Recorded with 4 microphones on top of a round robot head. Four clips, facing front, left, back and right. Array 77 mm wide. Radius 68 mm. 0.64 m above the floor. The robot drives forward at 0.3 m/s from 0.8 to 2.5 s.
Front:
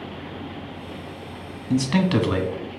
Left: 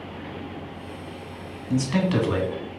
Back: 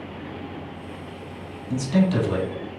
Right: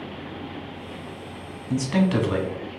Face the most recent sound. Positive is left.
turn(degrees=-10)